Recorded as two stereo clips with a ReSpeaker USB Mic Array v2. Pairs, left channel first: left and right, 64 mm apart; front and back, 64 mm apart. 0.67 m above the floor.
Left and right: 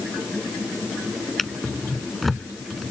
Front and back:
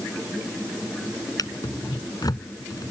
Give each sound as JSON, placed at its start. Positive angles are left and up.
{"t": 1.4, "sound": "a drawer", "azimuth_deg": 0}